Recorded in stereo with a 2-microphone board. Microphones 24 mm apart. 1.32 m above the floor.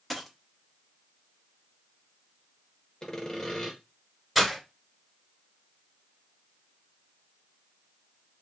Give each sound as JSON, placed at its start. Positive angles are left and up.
{"t": 0.1, "sound": "a dropped coin", "side_deg": 0, "distance_m": 0.9}
{"t": 3.0, "sound": "sawing", "side_deg": 25, "distance_m": 1.0}
{"t": 4.3, "sound": "breaking glass", "side_deg": -5, "distance_m": 1.8}